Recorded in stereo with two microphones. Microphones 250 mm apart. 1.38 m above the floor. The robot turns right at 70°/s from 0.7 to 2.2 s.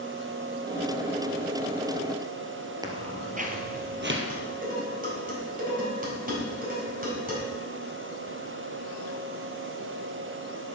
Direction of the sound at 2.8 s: 15° right (ahead or behind).